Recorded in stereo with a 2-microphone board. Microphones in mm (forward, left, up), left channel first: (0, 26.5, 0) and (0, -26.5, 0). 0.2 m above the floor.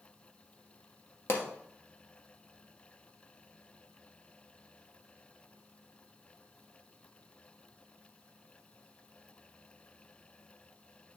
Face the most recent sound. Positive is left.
turn(degrees=50)  # may be behind; listen again after turning